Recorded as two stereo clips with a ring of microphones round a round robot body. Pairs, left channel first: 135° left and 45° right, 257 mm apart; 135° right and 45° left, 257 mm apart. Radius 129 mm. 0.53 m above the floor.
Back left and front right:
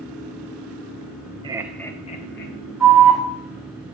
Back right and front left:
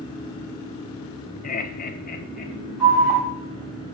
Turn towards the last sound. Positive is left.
turn(degrees=-140)